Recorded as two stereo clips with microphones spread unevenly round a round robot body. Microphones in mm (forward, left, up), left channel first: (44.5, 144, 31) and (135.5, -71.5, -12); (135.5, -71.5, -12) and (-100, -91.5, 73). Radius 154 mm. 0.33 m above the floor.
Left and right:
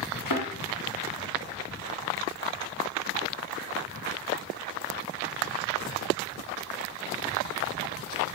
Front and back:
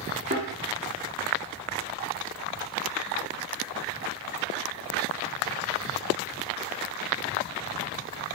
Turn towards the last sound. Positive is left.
turn(degrees=115)